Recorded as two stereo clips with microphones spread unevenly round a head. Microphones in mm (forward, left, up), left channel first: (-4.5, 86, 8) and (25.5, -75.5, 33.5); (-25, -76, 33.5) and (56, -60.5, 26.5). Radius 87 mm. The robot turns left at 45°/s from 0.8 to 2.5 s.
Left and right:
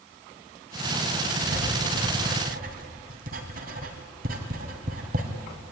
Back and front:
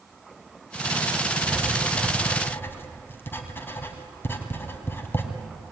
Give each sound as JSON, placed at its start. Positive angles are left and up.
{"t": 1.4, "sound": "writing", "azimuth_deg": -60, "distance_m": 2.5}